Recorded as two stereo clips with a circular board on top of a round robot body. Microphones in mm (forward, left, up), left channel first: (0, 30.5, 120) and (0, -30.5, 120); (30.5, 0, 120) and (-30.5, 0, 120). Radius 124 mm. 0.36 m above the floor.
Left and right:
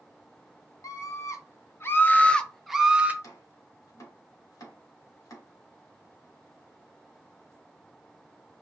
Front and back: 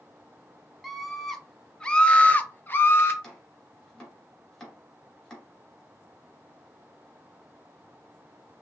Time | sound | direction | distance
0.8 | a scream | 90° left | 1.6 m
3.2 | chopping | 80° left | 3 m